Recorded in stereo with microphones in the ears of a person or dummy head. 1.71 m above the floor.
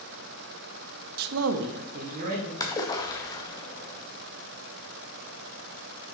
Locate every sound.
1.2 s a man speaking: 50° right (ahead or behind), 0.6 m; by 2.5 s 45° right (ahead or behind), 2.0 m
2.6 s a splash: 20° left (ahead or behind), 0.9 m